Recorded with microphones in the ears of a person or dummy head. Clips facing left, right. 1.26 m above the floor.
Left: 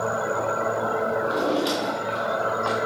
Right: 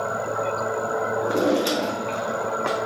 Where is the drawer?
40° right (ahead or behind), 1.3 m.